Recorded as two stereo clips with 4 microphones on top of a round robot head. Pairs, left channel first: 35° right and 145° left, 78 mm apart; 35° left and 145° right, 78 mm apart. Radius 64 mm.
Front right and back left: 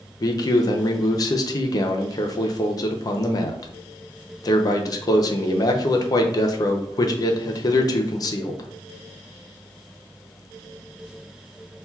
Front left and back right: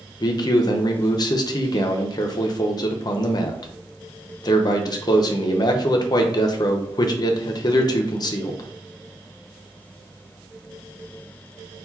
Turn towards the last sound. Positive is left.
turn(degrees=5)